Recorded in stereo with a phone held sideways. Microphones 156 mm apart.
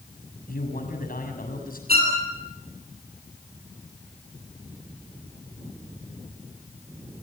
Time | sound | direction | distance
0.5 | a man speaking | 75° left (ahead or behind) | 7 m
1.9 | a violin | 85° right | 8 m